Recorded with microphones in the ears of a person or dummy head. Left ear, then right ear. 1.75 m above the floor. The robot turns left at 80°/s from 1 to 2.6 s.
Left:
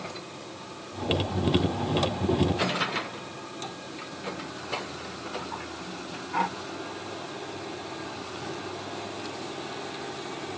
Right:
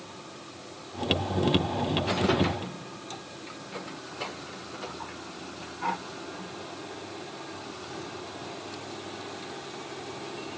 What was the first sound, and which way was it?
Only background noise.